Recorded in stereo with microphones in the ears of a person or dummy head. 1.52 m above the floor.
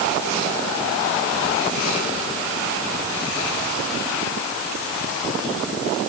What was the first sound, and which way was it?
Only background noise.